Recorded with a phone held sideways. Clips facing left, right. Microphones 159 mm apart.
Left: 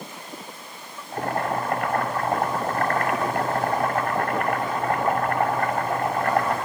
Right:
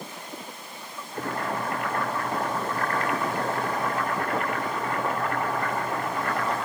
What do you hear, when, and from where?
1.1 s boiling: 60° left (ahead or behind), 6 m